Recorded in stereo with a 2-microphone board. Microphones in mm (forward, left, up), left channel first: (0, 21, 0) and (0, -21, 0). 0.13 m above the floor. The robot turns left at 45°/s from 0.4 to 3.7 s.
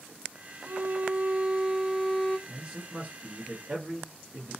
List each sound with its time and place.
0.7 s a violin: 115° right, 0.6 m; by 2.4 s 170° left, 0.6 m
2.5 s a man speaking: 30° right, 1.3 m; by 4.6 s 85° right, 1.3 m